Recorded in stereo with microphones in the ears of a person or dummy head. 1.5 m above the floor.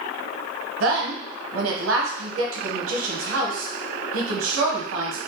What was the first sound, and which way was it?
A woman speaking, 80° right.